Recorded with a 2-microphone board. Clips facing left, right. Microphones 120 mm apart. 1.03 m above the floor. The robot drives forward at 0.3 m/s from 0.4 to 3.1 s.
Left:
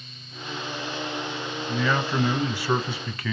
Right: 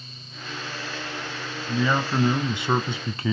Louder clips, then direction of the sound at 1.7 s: Right 2 dB; 15° right (ahead or behind).